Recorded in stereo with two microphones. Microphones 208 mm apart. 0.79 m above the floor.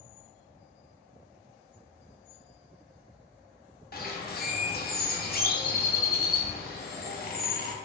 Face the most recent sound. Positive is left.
turn(degrees=50)  # may be behind; listen again after turning